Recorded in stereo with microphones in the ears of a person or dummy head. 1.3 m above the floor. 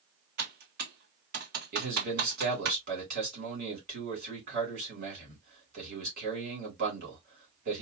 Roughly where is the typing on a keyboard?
Right.